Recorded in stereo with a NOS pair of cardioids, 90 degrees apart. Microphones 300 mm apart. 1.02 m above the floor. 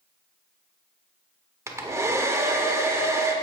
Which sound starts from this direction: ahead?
A hair dryer, at 1.7 s.